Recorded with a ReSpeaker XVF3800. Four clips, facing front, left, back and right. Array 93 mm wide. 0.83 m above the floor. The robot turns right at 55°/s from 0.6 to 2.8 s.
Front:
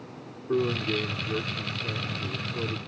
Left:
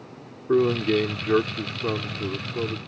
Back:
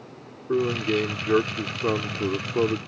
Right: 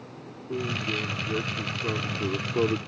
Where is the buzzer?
I don't hear a buzzer.